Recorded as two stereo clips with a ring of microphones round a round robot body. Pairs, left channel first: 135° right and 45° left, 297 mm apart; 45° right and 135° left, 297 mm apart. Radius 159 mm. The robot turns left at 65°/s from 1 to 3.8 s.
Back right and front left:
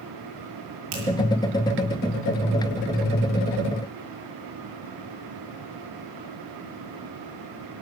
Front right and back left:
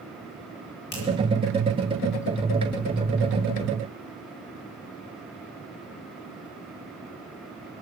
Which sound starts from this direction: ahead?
A finger snap, at 0.9 s.